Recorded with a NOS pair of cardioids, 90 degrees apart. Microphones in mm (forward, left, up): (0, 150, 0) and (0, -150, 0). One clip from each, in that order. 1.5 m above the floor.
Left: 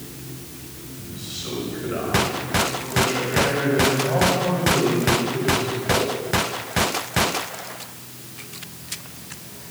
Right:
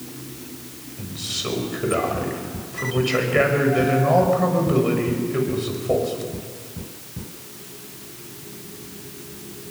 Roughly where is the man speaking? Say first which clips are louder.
Right 6 dB; ahead right.